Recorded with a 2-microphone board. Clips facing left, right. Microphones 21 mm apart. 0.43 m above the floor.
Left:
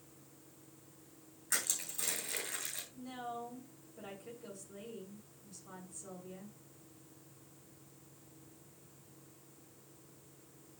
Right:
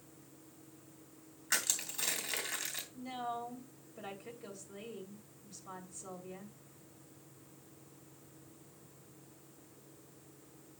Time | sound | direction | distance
1.5 | crushing | 35° right (ahead or behind) | 3 m
2.9 | a woman speaking | 30° right (ahead or behind) | 2.5 m